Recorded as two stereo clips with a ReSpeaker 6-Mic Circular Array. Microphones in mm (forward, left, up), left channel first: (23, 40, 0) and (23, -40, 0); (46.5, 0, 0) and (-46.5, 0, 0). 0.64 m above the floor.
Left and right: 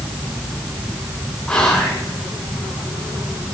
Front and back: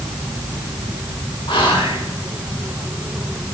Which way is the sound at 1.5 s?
10° left.